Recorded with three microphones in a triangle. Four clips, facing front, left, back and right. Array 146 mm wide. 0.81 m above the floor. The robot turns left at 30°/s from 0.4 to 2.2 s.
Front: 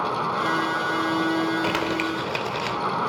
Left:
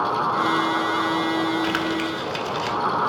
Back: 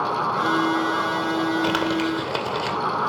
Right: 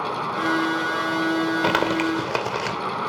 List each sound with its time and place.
1.6 s crumpling: 100° right, 2.5 m; by 2.8 s 115° right, 2.5 m